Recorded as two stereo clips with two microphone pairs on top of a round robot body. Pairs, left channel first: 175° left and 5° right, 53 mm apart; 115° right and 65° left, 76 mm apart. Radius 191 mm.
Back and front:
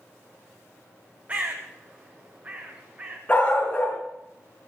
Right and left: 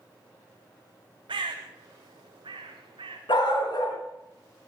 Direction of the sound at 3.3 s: 115° right.